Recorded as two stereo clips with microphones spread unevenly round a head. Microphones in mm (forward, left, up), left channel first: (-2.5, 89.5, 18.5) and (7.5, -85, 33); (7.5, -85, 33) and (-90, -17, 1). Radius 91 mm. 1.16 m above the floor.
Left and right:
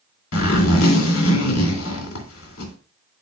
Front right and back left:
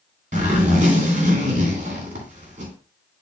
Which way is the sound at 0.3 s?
95° left.